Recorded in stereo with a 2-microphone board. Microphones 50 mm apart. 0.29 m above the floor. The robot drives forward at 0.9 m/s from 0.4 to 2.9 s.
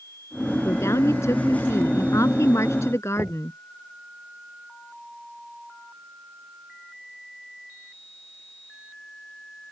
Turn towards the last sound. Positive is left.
turn(degrees=-20)  # may be behind; listen again after turning